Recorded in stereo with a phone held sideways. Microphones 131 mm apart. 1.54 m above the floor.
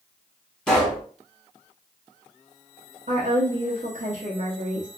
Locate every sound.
0.7 s a pop: 5° left (ahead or behind), 1.9 m
3.1 s a woman speaking: 65° right (ahead or behind), 0.8 m